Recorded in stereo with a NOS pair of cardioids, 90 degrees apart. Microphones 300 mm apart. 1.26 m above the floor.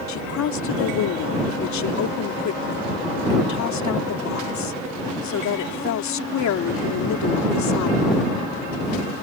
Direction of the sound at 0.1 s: 65° left.